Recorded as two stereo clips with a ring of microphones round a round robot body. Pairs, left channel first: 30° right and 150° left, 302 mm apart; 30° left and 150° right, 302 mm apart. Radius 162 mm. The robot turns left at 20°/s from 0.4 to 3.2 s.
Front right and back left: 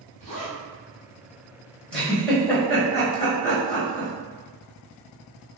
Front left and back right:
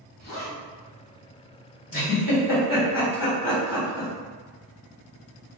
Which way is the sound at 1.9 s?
55° left.